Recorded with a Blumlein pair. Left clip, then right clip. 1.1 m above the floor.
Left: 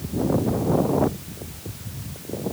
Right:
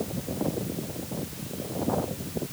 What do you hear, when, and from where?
Only background noise.